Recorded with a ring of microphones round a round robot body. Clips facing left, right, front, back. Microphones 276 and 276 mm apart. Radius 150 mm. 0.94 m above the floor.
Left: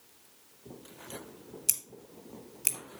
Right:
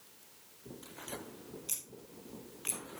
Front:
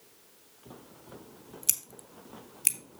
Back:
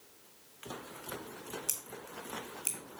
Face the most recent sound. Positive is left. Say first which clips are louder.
# left 2 dB, back 4 dB
turn(degrees=50)